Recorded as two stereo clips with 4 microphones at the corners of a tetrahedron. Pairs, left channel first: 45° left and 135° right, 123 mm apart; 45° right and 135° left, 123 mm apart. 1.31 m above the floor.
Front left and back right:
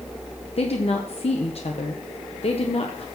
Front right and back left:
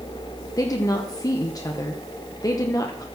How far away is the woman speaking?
About 1.0 m.